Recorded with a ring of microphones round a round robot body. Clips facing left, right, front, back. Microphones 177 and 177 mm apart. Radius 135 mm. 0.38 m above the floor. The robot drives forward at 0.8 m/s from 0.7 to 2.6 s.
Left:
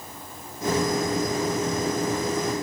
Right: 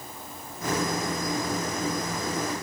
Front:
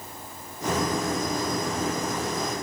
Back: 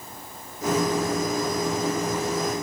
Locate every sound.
Only background noise.